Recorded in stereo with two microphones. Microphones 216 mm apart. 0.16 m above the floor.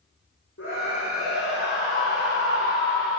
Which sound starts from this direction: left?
A scream, at 0.6 s.